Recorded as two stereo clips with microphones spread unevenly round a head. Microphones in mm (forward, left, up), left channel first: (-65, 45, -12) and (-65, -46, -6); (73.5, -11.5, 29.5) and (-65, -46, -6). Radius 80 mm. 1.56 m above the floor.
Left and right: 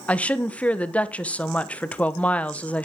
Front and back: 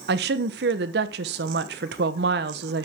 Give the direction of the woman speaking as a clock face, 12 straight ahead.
6 o'clock.